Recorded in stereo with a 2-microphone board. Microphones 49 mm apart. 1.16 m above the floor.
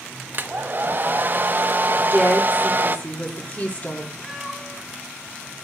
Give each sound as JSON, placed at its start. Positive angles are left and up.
{"t": 0.3, "sound": "a hair dryer", "side_deg": -40, "distance_m": 0.9}
{"t": 2.0, "sound": "a woman speaking", "side_deg": 35, "distance_m": 3.5}
{"t": 4.2, "sound": "a cat meowing", "side_deg": 10, "distance_m": 3.5}